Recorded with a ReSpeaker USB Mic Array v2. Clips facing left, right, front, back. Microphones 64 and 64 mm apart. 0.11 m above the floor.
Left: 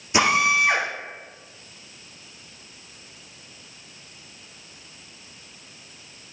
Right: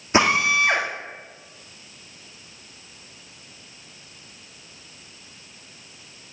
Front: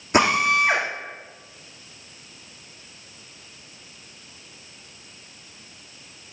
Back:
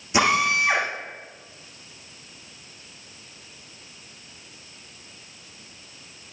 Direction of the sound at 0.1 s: 35° right.